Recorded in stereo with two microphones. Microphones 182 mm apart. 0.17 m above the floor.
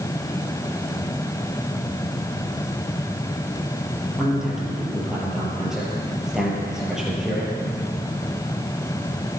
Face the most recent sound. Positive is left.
turn(degrees=-5)  # may be behind; listen again after turning